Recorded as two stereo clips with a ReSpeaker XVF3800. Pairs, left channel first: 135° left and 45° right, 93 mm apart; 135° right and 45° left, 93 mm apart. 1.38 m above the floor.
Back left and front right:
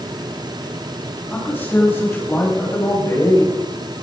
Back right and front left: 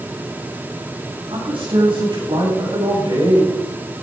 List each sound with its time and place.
1.3 s a man speaking: 65° left, 7.5 m; by 3.5 s 80° left, 8.5 m